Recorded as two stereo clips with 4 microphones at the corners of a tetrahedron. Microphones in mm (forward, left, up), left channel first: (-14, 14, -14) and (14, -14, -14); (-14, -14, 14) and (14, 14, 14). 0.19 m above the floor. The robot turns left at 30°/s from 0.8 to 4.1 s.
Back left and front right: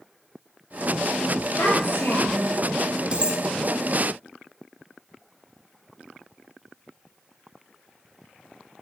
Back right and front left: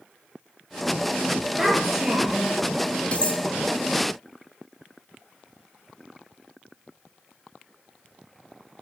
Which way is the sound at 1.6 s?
135° left.